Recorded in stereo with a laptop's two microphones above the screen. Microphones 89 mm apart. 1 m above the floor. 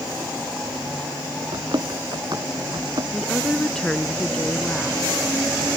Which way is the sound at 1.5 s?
60° right (ahead or behind).